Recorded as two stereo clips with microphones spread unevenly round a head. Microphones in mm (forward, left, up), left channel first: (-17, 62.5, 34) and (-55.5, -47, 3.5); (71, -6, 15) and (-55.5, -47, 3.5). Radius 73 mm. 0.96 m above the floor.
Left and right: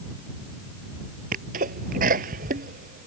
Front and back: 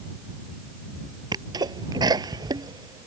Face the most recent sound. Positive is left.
turn(degrees=-100)